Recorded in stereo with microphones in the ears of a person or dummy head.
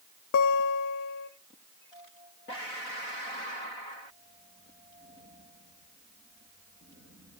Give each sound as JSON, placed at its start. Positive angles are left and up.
{"t": 0.3, "sound": "a guitar", "side_deg": 60, "distance_m": 0.6}